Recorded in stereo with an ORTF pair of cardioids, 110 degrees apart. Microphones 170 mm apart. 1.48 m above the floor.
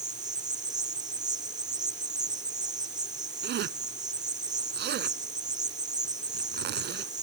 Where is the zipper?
65° right.